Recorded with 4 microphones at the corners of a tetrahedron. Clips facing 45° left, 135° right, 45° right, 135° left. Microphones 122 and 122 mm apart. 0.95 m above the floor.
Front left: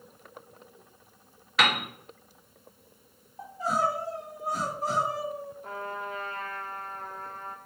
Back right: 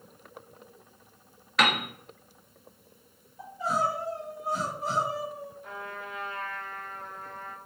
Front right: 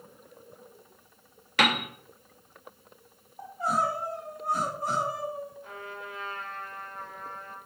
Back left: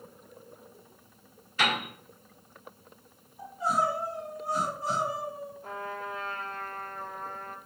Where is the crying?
5° right, 1.5 m.